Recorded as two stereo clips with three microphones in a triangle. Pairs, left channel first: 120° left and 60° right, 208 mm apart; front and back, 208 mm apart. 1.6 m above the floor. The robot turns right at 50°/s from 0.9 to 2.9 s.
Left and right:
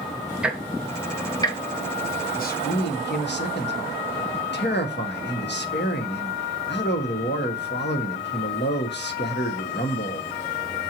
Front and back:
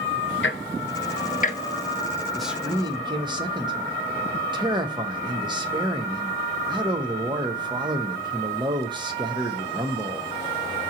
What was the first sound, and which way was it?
Ticking, 25° left.